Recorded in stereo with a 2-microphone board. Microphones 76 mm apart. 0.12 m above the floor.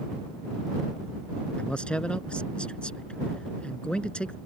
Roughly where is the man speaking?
Centre.